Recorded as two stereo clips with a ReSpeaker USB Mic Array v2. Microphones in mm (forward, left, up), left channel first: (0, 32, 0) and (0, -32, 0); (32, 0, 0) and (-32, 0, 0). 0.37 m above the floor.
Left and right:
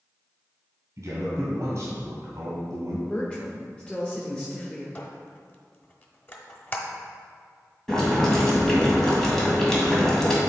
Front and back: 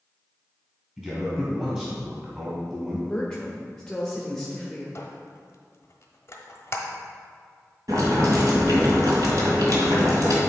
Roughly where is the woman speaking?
Ahead left.